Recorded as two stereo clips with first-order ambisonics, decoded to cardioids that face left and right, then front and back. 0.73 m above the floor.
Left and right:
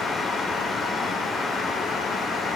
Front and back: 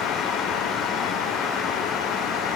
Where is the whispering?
I don't hear whispering.